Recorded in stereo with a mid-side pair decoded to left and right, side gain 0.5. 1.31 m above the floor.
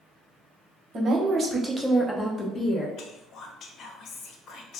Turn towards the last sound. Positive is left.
turn(degrees=60)